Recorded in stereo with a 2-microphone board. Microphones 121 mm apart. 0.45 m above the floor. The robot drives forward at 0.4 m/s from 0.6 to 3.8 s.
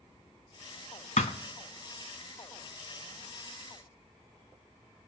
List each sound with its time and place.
1.2 s a thud: 75° left (ahead or behind), 0.7 m